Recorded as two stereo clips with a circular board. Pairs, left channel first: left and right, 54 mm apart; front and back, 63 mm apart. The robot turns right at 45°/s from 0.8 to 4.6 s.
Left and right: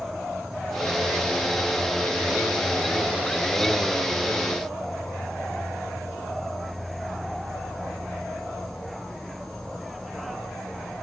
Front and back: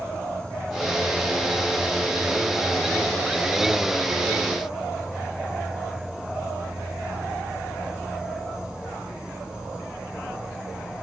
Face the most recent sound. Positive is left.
turn(degrees=155)